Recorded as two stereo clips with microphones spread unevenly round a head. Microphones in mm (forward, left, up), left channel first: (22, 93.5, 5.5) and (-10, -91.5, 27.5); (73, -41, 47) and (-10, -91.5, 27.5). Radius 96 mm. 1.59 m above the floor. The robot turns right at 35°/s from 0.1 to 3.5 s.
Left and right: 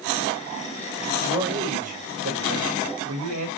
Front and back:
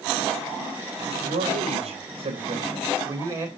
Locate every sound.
1.2 s a man speaking: 175° right, 3 m; by 3.5 s 95° right, 3 m